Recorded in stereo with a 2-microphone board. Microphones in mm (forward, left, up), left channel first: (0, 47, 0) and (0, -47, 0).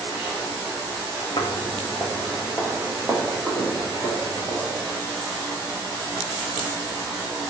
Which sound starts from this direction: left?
Footsteps, at 1.4 s.